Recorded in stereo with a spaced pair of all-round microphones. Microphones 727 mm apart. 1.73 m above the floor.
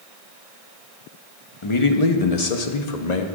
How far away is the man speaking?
About 1.2 m.